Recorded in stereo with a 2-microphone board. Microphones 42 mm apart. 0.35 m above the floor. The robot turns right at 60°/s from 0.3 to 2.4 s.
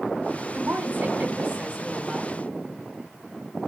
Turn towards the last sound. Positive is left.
turn(degrees=0)